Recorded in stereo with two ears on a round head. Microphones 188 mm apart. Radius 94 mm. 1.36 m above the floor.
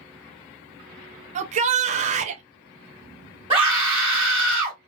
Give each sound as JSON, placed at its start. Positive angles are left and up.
{"t": 1.4, "sound": "a shout", "side_deg": -35, "distance_m": 0.5}
{"t": 3.5, "sound": "a scream", "side_deg": -20, "distance_m": 1.4}